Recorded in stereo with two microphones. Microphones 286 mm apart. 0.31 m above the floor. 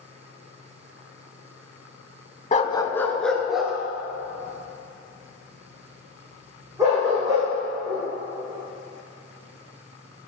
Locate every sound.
2.5 s a dog barking: 30° left (ahead or behind), 0.6 m; by 8.0 s 10° right (ahead or behind), 6 m